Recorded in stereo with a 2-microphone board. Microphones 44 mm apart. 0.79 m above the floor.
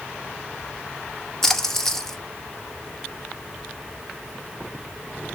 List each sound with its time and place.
1.4 s a splash: 10° left (ahead or behind), 1.0 m